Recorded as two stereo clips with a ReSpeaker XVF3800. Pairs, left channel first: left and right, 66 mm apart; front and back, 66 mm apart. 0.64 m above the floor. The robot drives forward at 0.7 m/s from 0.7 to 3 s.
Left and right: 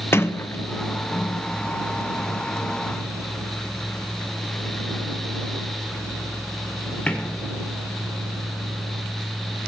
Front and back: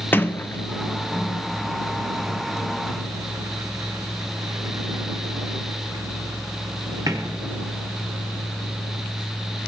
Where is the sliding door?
50° left, 0.7 m; by 7.5 s 160° left, 1.4 m.